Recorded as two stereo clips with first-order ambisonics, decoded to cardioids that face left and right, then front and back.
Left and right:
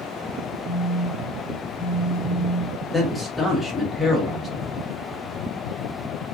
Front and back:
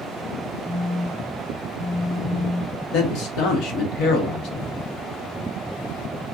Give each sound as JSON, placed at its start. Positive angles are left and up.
{"t": 0.7, "sound": "a phone buzzing", "azimuth_deg": 35, "distance_m": 1.2}
{"t": 2.9, "sound": "a man speaking", "azimuth_deg": 10, "distance_m": 1.0}